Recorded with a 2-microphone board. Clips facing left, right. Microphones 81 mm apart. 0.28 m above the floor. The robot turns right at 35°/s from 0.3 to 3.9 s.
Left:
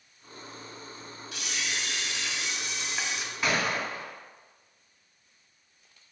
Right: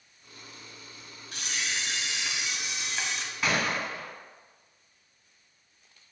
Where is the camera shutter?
55° right, 0.5 m; by 3.2 s 15° left, 0.5 m.